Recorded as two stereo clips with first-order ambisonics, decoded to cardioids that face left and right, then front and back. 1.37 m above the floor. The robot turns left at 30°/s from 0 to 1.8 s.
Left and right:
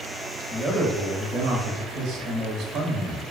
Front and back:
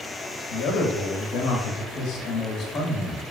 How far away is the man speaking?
About 0.7 m.